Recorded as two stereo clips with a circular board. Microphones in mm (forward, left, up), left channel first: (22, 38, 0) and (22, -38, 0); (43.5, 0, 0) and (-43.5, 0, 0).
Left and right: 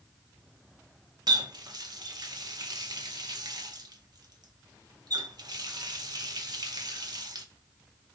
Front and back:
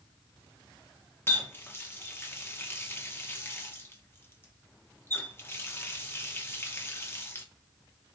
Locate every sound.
1.3 s a running tap: 65° right, 0.7 m